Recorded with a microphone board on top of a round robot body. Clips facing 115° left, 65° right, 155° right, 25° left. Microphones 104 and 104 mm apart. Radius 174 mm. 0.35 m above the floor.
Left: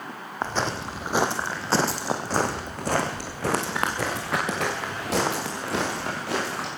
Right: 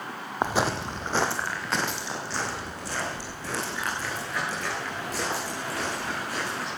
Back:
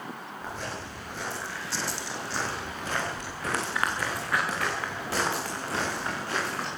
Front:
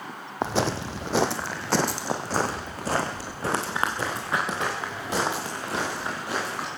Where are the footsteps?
10° left, 1.4 m; by 6.7 s 100° left, 5.5 m.